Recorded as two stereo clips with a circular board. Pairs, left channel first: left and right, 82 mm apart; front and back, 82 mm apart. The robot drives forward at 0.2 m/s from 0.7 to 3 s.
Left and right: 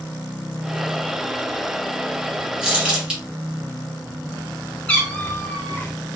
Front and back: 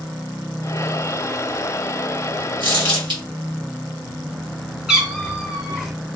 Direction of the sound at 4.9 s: 105° left.